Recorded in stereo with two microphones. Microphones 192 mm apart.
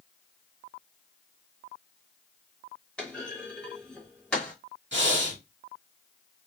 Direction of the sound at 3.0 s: 5° left (ahead or behind).